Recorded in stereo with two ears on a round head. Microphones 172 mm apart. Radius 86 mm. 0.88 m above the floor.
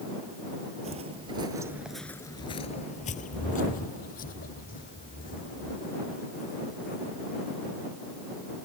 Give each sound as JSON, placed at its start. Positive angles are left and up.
{"t": 0.8, "sound": "footsteps", "side_deg": -35}